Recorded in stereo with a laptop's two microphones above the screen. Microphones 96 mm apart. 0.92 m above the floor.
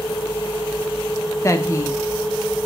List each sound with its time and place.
1.4 s a woman speaking: 30° left (ahead or behind), 1.1 m